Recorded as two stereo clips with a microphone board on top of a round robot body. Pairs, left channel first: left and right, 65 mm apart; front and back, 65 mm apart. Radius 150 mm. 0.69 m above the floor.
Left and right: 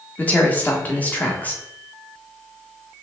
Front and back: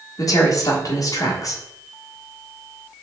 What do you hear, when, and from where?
0.2 s a woman speaking: 25° left, 1.4 m